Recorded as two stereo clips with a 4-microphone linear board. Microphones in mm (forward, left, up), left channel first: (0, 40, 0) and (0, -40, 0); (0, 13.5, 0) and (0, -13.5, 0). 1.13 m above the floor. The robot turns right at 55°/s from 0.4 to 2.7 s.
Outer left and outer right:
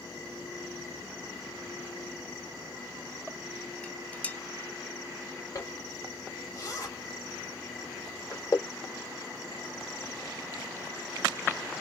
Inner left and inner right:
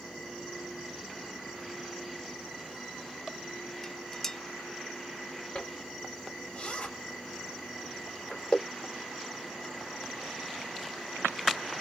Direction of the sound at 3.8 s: 15° left (ahead or behind).